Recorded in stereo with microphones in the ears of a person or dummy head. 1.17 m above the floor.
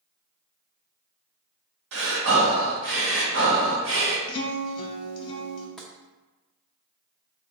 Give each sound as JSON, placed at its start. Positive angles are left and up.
{"t": 1.9, "sound": "breathing", "side_deg": -75, "distance_m": 1.3}
{"t": 4.3, "sound": "a guitar", "side_deg": 30, "distance_m": 0.8}
{"t": 5.8, "sound": "tapping", "side_deg": 0, "distance_m": 0.6}